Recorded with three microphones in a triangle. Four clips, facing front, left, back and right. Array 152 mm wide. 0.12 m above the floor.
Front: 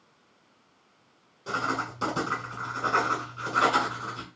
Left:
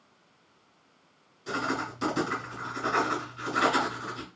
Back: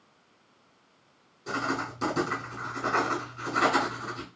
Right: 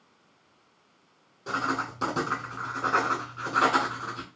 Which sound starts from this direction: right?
Writing, at 1.5 s.